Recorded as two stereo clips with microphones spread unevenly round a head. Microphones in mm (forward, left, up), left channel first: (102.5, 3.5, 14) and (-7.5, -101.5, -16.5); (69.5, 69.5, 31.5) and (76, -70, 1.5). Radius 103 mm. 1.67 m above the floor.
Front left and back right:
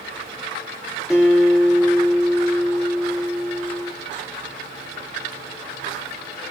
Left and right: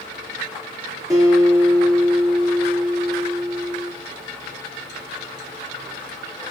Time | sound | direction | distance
1.1 | a guitar | 25° right | 1.3 m